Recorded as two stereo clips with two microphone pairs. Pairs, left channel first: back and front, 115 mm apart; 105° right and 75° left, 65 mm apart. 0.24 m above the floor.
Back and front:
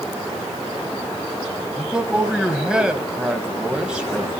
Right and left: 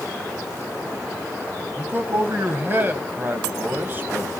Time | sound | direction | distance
1.8 | a man speaking | 75° left | 1.2 m